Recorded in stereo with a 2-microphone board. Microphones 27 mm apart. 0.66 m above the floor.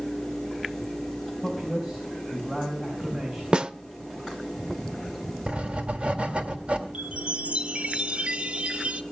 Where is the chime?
50° right (ahead or behind), 1.0 m.